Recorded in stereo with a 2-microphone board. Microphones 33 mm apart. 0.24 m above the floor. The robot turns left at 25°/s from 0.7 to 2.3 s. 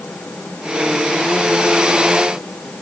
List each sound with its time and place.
Only background noise.